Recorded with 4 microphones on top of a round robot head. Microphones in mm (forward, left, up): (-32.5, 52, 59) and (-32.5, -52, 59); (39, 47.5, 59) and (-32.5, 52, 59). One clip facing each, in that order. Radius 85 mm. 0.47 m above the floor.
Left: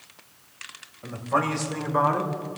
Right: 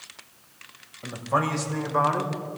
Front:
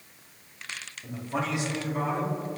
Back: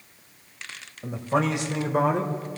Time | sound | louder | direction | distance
1.0 | a man speaking | even, back 7 dB | 170° right | 2.5 m